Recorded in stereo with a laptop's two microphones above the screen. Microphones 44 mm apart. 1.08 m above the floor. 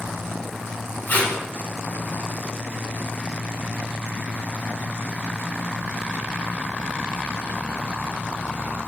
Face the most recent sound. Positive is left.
turn(degrees=40)  # may be behind; listen again after turning